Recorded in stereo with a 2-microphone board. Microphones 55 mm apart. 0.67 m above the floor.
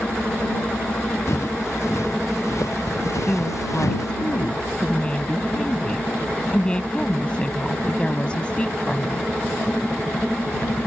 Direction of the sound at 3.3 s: 20° left (ahead or behind).